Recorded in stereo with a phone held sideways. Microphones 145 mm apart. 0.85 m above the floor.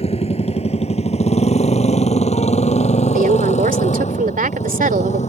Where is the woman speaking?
75° right (ahead or behind).